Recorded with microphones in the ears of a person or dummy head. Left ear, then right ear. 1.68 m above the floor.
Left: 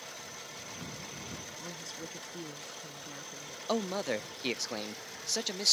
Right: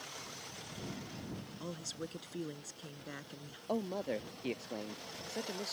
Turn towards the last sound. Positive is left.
turn(degrees=55)  # may be behind; listen again after turning